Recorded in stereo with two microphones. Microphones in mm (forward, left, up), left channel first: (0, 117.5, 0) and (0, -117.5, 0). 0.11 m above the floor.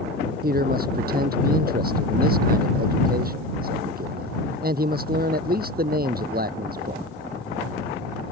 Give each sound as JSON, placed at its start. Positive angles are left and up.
{"t": 0.4, "sound": "a man speaking", "side_deg": -40}